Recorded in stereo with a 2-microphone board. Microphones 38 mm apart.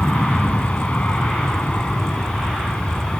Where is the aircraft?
40° left (ahead or behind); by 3.2 s 35° left (ahead or behind).